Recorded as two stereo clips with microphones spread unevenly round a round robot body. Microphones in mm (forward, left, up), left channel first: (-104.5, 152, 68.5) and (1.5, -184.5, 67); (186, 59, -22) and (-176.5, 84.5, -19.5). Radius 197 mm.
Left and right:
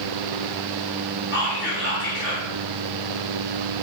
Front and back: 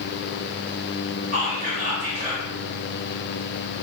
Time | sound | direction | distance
1.3 | whispering | 125° left | 1.0 m